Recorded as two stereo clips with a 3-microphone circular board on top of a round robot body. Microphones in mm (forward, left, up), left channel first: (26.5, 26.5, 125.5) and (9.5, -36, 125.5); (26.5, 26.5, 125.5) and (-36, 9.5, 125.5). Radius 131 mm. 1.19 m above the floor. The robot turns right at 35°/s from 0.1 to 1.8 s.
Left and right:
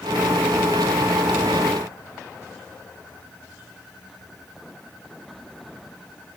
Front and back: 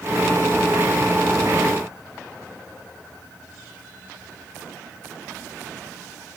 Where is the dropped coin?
No dropped coin in this recording.